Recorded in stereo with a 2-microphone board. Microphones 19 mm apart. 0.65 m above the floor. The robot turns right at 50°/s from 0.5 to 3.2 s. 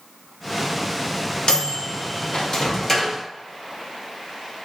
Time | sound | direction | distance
1.5 | a microwave | 50° left (ahead or behind) | 0.6 m